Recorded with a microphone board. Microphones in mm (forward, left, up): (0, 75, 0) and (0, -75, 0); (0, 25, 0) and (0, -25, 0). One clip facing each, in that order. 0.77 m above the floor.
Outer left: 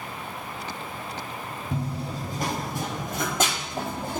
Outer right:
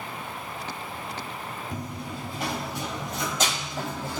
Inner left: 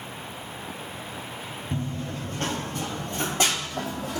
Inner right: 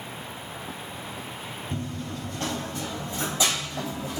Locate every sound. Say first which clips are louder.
1.7 s running footsteps: outer left 7 dB, inner left 3 dB; 25° left (ahead or behind), 1.0 m; by 4.2 s 50° left (ahead or behind), 1.5 m